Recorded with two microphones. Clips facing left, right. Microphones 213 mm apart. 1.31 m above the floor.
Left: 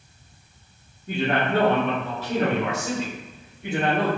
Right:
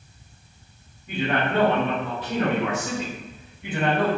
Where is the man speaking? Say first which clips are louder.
Left 1 dB; 40° left (ahead or behind), 1.4 m; by 4.1 s 45° left (ahead or behind), 3 m.